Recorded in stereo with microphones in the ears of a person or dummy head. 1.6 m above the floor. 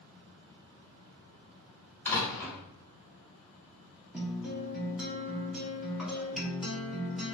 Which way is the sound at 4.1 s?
5° right (ahead or behind).